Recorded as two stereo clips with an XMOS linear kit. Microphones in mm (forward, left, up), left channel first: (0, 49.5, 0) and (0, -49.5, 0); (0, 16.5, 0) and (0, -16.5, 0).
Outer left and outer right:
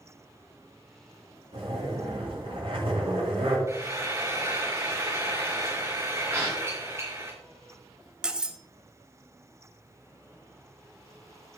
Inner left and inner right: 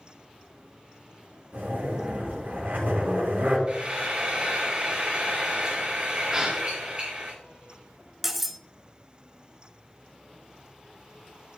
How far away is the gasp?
About 3 m.